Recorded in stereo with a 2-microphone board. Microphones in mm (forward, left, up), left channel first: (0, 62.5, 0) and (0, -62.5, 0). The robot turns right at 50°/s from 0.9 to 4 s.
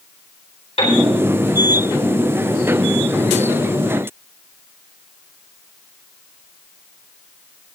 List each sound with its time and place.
0.8 s a piano: 60° left (ahead or behind), 4 m